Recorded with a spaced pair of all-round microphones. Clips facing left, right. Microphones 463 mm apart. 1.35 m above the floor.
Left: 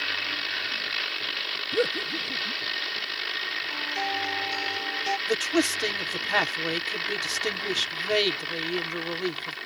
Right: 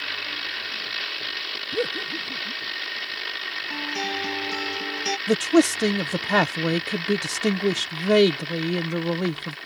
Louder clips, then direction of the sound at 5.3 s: Right 8 dB; 65° right (ahead or behind).